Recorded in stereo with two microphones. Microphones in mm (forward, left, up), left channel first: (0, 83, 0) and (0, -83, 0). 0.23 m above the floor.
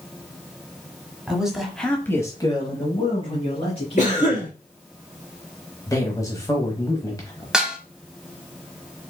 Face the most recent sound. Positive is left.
turn(degrees=-5)  # may be behind; listen again after turning